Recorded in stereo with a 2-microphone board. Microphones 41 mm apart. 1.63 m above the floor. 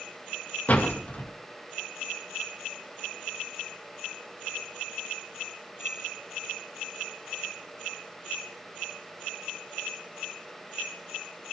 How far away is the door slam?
About 2 m.